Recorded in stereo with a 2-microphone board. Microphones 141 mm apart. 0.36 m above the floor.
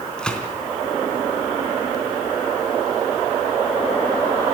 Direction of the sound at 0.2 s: 5° left (ahead or behind).